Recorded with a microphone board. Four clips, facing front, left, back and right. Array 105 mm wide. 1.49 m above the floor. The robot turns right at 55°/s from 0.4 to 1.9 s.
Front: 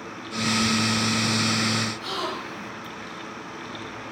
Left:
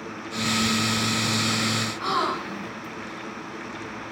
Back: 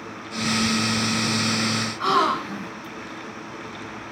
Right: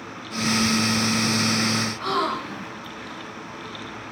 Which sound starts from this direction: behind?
A gasp, at 2.0 s.